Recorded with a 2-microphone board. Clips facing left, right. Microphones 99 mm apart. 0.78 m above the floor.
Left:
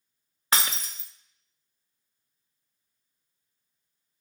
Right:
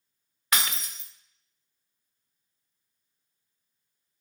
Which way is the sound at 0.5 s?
30° left (ahead or behind).